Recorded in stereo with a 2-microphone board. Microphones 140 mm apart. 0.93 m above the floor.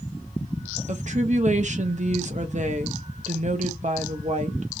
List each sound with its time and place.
0.9 s a woman speaking: 60° right (ahead or behind), 0.8 m